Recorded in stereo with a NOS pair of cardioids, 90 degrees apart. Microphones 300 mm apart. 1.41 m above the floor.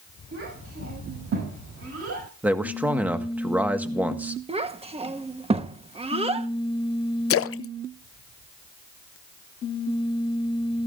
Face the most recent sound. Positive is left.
turn(degrees=45)